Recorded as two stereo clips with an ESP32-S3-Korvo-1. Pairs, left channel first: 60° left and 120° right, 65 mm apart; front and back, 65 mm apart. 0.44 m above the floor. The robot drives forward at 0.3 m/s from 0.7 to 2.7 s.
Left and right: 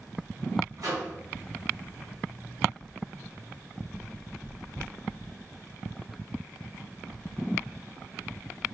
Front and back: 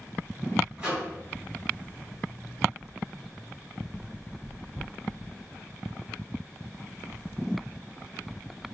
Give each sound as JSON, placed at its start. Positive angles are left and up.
{"t": 0.8, "sound": "a microwave", "azimuth_deg": -100, "distance_m": 1.9}